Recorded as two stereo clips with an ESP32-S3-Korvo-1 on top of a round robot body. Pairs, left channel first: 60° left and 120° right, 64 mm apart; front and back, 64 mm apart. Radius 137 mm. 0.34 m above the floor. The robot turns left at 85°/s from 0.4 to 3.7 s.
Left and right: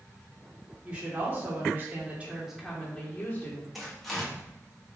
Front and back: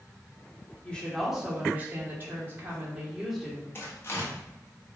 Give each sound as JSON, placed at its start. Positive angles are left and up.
{"t": 0.8, "sound": "a woman speaking", "azimuth_deg": -55, "distance_m": 1.5}
{"t": 3.8, "sound": "tearing paper", "azimuth_deg": -30, "distance_m": 1.5}